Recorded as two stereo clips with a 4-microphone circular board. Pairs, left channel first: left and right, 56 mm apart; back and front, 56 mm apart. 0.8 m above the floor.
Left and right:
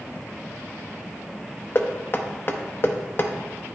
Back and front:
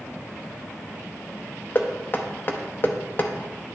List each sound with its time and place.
1.8 s knocking: 130° left, 0.6 m